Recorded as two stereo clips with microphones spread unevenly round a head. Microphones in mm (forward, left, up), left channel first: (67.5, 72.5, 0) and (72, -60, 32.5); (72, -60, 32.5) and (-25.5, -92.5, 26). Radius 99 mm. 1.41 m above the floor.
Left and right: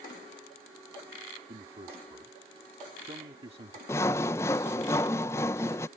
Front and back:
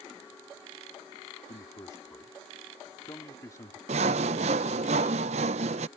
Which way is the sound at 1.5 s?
40° right.